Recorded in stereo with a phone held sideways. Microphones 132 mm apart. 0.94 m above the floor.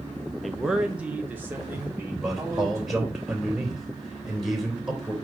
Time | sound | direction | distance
0.4 | a man speaking | centre (ahead or behind) | 0.6 m
2.1 | a man speaking | 5° right (ahead or behind) | 3 m